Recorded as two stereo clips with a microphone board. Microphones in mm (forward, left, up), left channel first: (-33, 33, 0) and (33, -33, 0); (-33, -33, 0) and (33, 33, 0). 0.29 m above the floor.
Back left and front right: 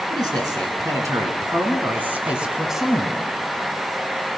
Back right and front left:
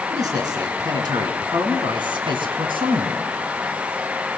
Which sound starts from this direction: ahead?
A man speaking, at 0.1 s.